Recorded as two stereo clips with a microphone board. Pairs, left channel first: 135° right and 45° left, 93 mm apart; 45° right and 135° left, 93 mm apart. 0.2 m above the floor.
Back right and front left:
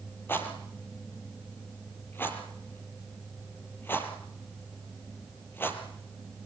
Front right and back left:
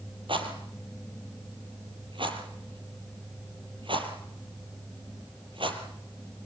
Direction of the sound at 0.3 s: 160° left.